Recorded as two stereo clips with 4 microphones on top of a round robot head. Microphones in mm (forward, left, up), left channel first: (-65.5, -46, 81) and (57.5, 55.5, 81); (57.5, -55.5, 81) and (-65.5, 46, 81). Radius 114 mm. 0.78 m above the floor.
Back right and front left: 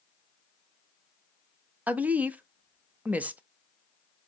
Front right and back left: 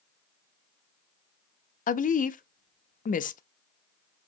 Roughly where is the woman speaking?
Ahead right.